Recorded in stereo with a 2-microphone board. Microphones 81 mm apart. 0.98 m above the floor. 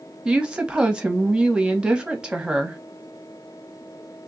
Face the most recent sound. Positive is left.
turn(degrees=-10)  # may be behind; listen again after turning